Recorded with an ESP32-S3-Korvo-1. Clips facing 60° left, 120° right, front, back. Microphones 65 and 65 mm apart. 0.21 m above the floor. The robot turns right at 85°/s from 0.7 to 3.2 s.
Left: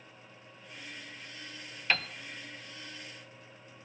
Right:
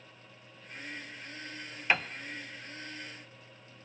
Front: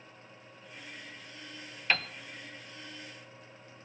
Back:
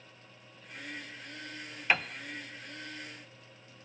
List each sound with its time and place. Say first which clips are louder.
1.9 s a piano: right 2 dB, back 2 dB; 140° right, 0.8 m; by 2.1 s 125° right, 0.8 m